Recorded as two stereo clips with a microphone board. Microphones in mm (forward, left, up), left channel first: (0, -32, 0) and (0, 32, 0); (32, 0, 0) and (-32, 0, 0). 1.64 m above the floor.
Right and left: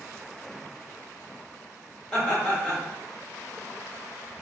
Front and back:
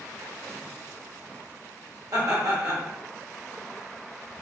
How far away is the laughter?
About 1.6 m.